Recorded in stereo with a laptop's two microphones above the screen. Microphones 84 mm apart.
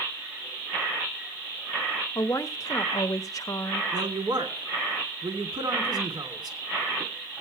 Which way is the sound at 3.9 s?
55° right (ahead or behind).